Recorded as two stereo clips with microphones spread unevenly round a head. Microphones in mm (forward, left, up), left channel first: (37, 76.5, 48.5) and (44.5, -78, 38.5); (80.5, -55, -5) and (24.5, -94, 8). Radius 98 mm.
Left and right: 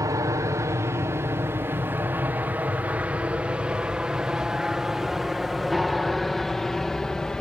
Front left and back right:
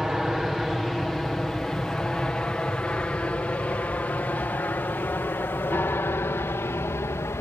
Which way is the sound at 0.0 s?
60° right.